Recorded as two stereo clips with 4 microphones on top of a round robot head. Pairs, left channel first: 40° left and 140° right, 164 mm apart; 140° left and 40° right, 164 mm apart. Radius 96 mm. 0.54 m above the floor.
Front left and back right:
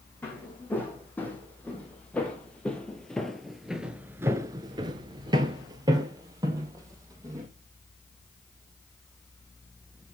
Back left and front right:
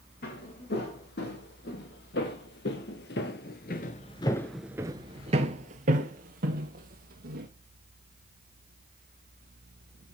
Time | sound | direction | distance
0.2 | footsteps | 120° left | 2.5 m